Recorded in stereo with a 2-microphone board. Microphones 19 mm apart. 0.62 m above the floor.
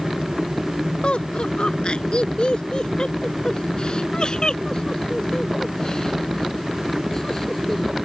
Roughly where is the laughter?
Left.